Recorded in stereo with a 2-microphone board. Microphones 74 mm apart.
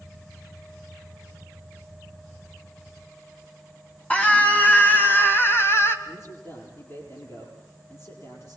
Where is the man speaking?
40° left (ahead or behind), 8 m.